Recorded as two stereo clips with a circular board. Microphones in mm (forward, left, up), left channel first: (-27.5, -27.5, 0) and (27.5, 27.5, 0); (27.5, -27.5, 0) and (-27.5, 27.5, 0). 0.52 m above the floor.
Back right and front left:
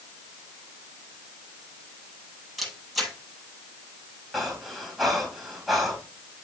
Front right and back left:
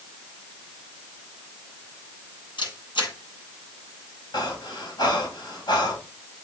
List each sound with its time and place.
2.6 s a camera shutter: 45° right, 7.5 m
4.3 s breathing: 45° right, 2.5 m